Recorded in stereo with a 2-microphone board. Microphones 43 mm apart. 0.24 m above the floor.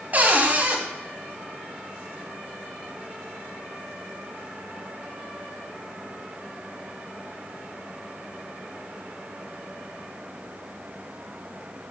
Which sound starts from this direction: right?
A cupboard door, at 0.1 s.